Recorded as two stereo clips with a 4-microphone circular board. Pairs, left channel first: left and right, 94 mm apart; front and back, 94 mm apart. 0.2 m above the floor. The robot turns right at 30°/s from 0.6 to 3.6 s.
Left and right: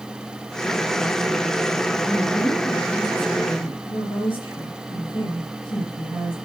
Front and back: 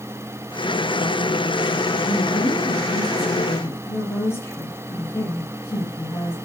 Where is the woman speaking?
15° left, 5.5 m; by 6.3 s 60° left, 5.5 m.